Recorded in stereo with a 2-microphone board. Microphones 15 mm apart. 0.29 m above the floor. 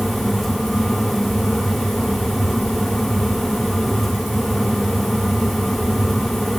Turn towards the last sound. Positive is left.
No sound to turn to.